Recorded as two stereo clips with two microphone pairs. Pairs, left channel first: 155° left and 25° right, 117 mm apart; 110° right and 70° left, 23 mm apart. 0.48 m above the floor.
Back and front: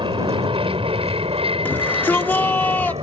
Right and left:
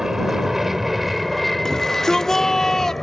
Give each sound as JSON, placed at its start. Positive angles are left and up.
{"t": 0.0, "sound": "an aircraft", "azimuth_deg": 0}
{"t": 1.6, "sound": "a shout", "azimuth_deg": -150}